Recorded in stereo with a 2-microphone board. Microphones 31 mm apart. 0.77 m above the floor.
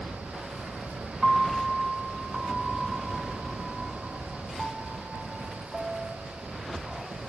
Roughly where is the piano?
Centre.